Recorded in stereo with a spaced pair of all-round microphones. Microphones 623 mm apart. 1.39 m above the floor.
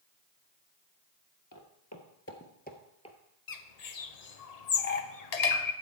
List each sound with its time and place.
1.5 s footsteps: 30° left (ahead or behind), 1.5 m; by 3.2 s 10° left (ahead or behind), 1.6 m
3.5 s a bird: 80° left, 0.8 m